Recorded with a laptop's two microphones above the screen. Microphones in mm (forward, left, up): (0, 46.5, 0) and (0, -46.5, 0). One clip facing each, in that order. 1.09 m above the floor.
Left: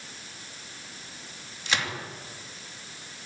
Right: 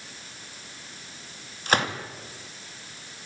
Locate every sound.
1.7 s a gunshot: 45° right (ahead or behind), 2.0 m